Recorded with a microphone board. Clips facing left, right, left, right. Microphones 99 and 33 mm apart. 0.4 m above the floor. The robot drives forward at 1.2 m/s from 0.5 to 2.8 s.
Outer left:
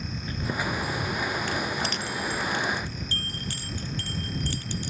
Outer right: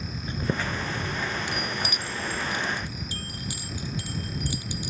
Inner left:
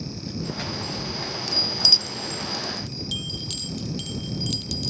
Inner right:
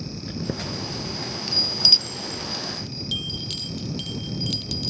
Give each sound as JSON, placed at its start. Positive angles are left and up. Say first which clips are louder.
{"t": 0.3, "sound": "a chime", "louder": "outer right 1 dB, inner right 1 dB", "side_deg": -25}